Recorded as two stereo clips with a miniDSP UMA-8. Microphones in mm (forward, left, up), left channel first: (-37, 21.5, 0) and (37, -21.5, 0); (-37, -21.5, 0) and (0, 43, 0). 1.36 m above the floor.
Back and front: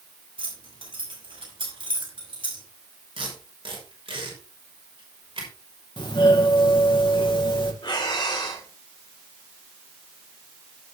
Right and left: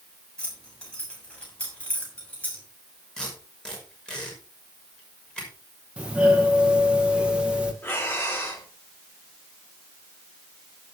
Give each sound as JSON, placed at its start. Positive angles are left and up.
{"t": 0.4, "sound": "keys jangling", "azimuth_deg": -45, "distance_m": 6.5}
{"t": 3.2, "sound": "tape being pulled", "azimuth_deg": -40, "distance_m": 6.0}
{"t": 6.0, "sound": "a doorbell", "azimuth_deg": 130, "distance_m": 2.5}
{"t": 7.8, "sound": "breathing", "azimuth_deg": 180, "distance_m": 3.5}